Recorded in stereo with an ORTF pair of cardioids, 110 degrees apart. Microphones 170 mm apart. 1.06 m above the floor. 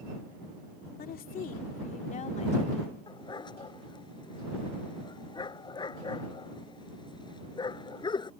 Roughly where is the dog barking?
Ahead left.